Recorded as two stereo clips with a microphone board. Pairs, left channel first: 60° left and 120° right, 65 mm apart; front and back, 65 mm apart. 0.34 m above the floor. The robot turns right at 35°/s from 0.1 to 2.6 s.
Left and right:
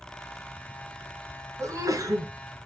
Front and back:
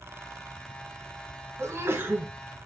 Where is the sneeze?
145° right, 2.5 m; by 2.3 s 120° right, 2.5 m.